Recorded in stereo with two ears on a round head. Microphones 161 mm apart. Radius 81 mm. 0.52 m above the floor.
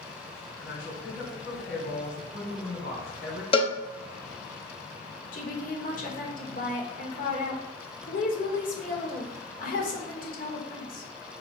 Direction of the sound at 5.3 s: 50° left (ahead or behind).